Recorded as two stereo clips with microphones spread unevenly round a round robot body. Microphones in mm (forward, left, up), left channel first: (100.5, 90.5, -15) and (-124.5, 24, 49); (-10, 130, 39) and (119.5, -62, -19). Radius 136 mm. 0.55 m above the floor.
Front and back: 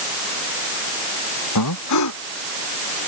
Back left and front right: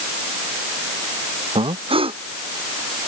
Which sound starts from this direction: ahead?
Breathing, at 1.6 s.